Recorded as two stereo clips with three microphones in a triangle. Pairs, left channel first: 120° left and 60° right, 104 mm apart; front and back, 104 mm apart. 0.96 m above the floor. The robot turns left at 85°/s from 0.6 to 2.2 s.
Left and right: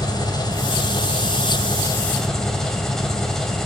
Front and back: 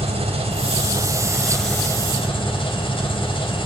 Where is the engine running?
170° left, 3 m; by 3.7 s 35° left, 3 m.